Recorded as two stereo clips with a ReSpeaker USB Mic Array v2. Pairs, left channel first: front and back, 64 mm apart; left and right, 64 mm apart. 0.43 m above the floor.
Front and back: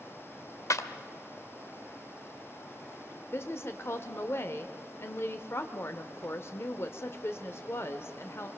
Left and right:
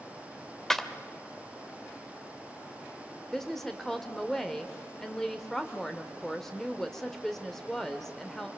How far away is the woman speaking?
About 1.1 m.